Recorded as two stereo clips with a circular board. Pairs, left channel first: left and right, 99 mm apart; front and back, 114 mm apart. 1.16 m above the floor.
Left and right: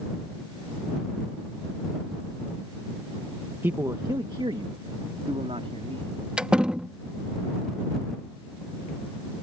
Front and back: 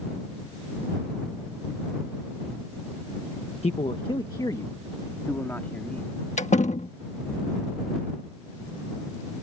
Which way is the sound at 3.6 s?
20° right.